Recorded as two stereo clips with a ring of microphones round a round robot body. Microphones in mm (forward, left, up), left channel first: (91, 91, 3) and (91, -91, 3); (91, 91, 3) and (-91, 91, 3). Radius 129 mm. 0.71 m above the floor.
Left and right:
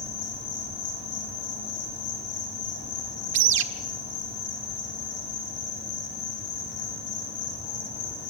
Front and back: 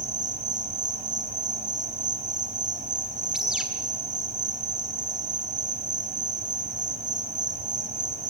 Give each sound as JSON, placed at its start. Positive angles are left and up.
{"t": 0.0, "sound": "an insect", "azimuth_deg": 135, "distance_m": 6.5}
{"t": 3.3, "sound": "a bird", "azimuth_deg": -90, "distance_m": 1.3}